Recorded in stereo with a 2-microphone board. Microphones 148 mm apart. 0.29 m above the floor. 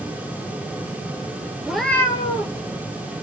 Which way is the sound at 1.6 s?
10° right (ahead or behind).